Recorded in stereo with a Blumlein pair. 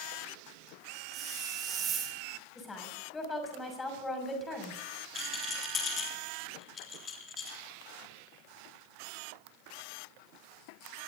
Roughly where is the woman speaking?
Ahead.